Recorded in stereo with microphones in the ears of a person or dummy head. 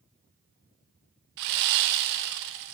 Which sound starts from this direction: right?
Sawing, at 1.4 s.